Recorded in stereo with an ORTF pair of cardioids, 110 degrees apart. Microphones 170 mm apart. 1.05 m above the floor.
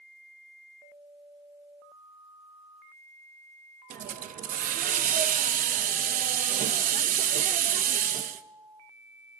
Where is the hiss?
50° right, 0.9 m.